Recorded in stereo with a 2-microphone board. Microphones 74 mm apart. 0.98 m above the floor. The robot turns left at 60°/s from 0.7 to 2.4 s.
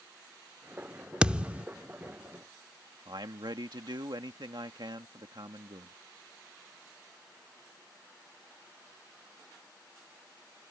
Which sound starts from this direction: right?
A man speaking, at 3.0 s.